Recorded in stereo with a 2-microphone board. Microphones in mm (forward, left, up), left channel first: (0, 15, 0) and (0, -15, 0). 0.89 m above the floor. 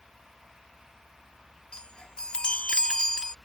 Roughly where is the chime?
Left.